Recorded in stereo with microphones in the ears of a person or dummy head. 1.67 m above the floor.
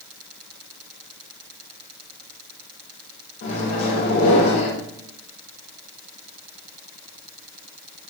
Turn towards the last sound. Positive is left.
turn(degrees=70)  # may be behind; listen again after turning